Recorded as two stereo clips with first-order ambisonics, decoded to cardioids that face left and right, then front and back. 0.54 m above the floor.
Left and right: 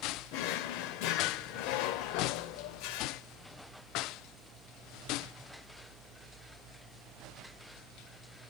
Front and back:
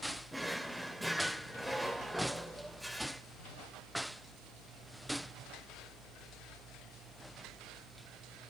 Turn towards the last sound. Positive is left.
turn(degrees=90)